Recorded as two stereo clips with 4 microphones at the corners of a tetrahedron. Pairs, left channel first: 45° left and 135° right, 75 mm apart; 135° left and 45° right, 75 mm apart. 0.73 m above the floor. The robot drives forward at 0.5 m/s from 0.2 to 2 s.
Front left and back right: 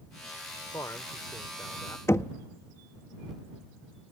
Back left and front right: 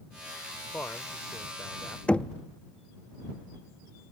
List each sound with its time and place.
0.7 s a man speaking: 80° left; by 2.0 s 90° left
2.1 s knocking: 70° left